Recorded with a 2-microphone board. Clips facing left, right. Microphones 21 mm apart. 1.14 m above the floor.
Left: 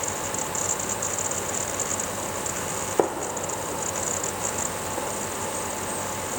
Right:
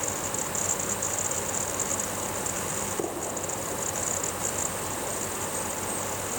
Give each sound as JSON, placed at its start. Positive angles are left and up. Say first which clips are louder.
{"t": 3.0, "sound": "a gunshot", "louder": "left 6 dB", "side_deg": 70, "distance_m": 1.7}